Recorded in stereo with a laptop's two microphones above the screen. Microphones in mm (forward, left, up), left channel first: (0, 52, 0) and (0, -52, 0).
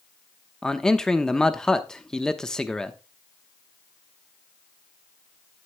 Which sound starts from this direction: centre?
A man speaking, at 0.6 s.